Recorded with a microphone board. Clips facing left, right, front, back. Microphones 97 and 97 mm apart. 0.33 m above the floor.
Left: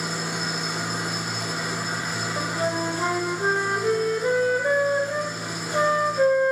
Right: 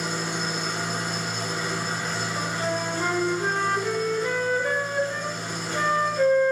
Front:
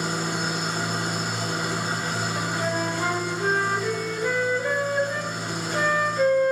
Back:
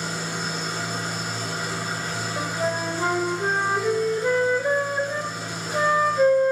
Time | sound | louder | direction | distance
0.0 | an engine running | even, front 3 dB | 10° left | 2.5 m
2.4 | a flute | left 3 dB, back 3 dB | 130° left | 1.0 m